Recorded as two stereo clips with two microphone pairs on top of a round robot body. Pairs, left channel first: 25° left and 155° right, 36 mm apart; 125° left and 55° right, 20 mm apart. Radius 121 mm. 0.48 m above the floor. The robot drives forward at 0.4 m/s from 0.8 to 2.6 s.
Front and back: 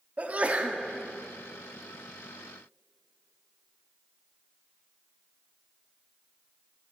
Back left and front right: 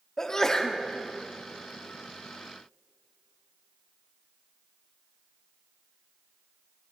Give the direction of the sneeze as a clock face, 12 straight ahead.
6 o'clock.